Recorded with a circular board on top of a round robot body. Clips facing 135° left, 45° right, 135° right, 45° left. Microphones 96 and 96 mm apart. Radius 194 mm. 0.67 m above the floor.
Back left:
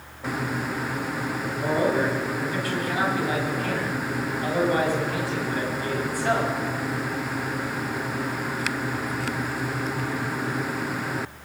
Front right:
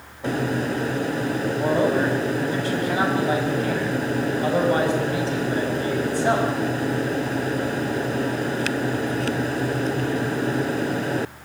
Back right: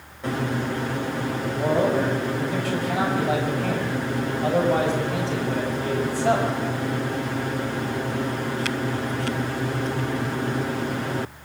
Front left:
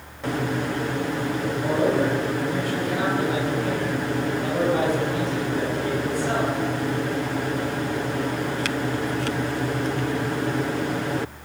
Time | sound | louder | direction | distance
1.6 | a man speaking | front right 2 dB, back right 1 dB | 110° right | 6 m